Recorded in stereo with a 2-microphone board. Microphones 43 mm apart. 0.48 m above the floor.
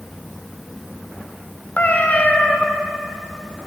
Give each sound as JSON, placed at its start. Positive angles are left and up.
{"t": 1.8, "sound": "a cat meowing", "side_deg": 35, "distance_m": 0.7}